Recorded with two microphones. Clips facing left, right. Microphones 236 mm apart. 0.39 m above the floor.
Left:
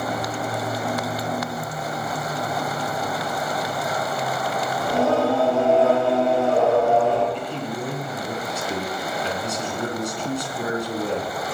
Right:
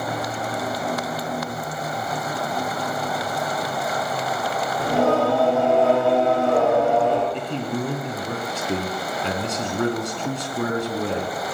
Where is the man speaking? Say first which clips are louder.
Right 2 dB; 70° right (ahead or behind), 3.5 m.